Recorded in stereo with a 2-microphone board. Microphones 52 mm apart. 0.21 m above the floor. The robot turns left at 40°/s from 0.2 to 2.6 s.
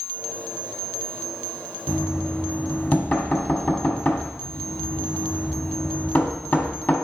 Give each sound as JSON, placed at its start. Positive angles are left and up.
{"t": 1.9, "sound": "knocking", "side_deg": 30, "distance_m": 1.2}